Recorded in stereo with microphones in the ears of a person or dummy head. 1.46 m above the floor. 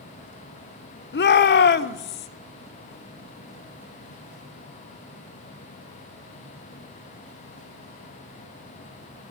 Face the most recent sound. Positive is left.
turn(degrees=50)  # may be behind; listen again after turning